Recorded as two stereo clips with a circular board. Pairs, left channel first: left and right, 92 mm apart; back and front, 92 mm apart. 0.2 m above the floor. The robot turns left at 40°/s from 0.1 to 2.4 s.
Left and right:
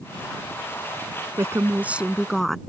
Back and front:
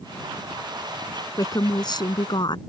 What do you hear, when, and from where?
1.4 s a woman speaking: 140° right; by 2.6 s straight behind